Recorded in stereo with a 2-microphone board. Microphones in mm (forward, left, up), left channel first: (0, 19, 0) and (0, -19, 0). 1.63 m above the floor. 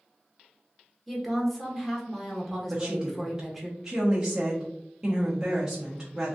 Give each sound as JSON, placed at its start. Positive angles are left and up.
{"t": 1.1, "sound": "a woman speaking", "side_deg": 5, "distance_m": 1.0}
{"t": 2.7, "sound": "a woman speaking", "side_deg": -15, "distance_m": 0.9}